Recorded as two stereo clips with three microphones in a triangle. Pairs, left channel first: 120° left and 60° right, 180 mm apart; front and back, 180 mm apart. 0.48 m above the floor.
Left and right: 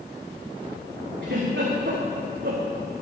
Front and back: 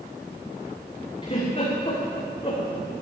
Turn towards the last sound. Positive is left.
turn(degrees=-55)